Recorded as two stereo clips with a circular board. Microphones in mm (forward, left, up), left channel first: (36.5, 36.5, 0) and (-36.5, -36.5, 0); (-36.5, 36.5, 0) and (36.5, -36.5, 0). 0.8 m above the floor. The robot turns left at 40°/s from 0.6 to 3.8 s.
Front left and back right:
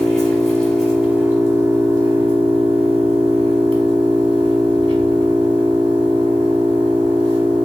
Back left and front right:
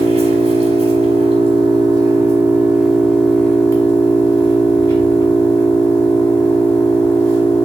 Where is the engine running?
40° right, 1.4 m; by 7.7 s 170° right, 1.4 m.